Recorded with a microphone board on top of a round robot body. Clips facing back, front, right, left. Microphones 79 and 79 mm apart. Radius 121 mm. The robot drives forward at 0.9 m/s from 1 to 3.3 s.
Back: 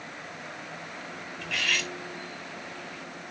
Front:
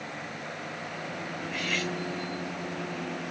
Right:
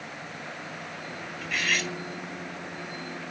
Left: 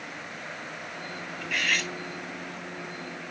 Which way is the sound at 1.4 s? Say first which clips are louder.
Back 1 dB, even; straight behind.